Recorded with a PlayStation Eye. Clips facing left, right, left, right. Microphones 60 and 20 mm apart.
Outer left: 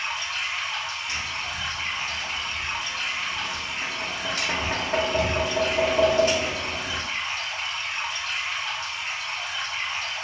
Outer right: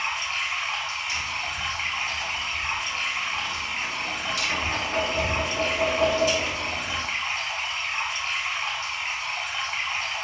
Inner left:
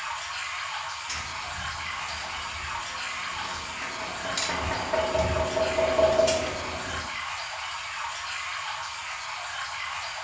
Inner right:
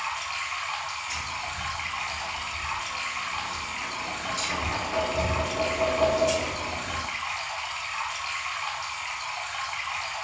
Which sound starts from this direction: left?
Tapping, at 1.1 s.